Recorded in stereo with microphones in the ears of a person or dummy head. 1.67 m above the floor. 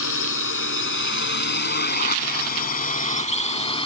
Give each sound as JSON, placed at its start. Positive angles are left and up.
{"t": 0.0, "sound": "a drone", "side_deg": 65}